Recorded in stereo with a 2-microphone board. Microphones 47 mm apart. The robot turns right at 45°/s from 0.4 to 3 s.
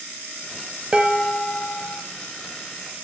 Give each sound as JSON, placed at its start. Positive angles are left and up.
{"t": 0.9, "sound": "dishes clattering", "azimuth_deg": -20, "distance_m": 1.3}